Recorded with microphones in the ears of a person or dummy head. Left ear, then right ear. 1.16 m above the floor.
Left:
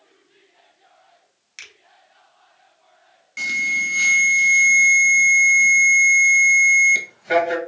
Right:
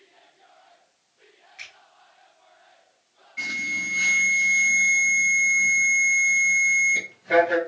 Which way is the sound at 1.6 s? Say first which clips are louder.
Left 1 dB; 70° left (ahead or behind).